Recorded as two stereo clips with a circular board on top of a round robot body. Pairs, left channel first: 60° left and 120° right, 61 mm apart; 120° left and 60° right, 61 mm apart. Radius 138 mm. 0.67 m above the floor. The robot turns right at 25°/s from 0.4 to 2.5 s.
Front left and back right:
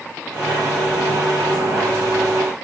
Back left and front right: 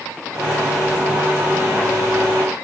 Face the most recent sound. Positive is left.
No sound to turn to.